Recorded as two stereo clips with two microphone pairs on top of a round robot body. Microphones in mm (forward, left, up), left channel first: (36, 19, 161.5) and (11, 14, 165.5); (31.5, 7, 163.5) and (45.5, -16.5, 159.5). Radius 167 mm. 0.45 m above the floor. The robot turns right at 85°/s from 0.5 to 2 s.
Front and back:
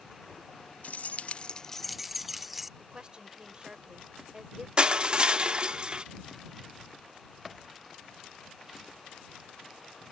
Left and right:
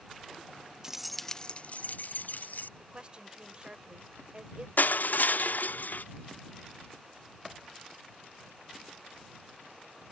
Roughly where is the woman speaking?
Right.